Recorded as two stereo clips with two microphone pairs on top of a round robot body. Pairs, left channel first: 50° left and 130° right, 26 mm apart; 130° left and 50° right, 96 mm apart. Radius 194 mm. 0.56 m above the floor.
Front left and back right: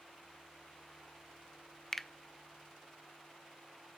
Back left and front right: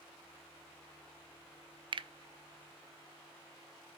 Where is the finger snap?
25° right, 0.5 m.